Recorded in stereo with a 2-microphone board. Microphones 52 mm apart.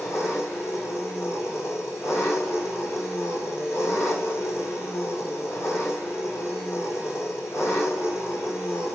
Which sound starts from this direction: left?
An engine running, at 0.0 s.